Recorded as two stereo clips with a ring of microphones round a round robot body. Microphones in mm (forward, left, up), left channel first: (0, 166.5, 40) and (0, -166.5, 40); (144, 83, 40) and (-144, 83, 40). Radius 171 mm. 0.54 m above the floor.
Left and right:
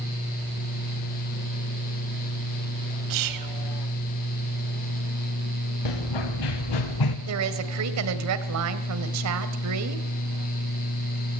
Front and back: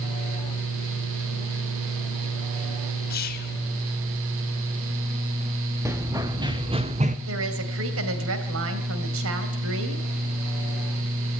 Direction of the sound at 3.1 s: 60° right.